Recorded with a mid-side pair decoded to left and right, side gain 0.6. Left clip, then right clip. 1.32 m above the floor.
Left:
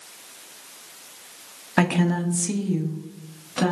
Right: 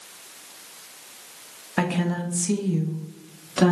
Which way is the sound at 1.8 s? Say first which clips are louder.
Left 3 dB; 30° left.